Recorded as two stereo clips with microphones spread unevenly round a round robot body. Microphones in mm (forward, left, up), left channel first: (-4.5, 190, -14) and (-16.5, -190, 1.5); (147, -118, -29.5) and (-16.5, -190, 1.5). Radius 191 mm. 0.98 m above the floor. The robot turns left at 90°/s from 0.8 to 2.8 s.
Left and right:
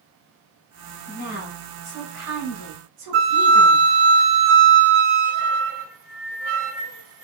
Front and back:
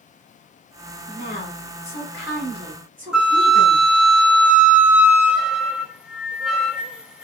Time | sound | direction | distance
1.1 | a woman speaking | 45° left | 2.5 m
3.1 | a flute | 75° right | 1.0 m